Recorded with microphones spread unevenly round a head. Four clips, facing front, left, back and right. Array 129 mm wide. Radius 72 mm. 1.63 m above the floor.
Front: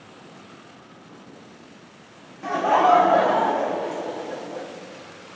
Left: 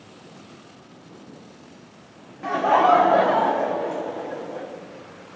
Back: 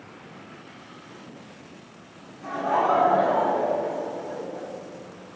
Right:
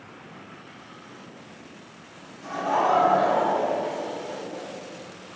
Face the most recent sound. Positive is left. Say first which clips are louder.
# left 6 dB, front 5 dB
turn(degrees=55)